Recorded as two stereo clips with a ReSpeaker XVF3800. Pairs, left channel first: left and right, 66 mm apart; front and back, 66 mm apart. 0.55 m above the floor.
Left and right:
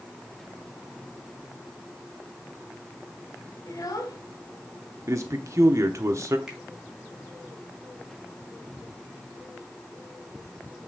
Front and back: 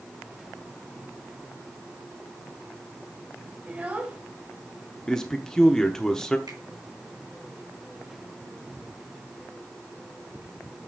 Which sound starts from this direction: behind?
A finger snap, at 6.5 s.